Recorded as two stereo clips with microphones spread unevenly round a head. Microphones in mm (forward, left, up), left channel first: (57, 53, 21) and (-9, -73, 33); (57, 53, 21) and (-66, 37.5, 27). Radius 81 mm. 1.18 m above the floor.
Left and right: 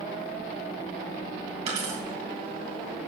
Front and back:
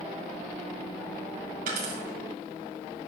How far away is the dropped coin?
About 3 m.